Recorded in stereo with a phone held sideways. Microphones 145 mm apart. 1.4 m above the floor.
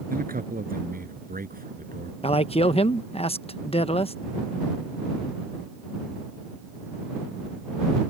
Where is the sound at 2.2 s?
40° left (ahead or behind).